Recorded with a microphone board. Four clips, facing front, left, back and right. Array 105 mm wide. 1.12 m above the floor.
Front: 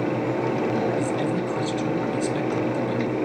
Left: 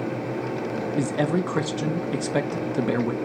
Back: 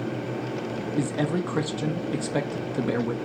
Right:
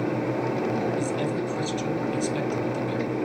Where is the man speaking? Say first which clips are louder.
Left 3 dB, front 2 dB; 110° left, 1.0 m.